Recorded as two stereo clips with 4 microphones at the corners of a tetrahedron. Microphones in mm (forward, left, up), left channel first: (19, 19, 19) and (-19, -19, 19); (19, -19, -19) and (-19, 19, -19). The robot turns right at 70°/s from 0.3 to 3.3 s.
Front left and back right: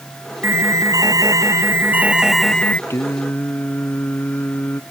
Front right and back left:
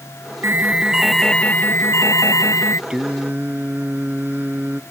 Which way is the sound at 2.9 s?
60° left.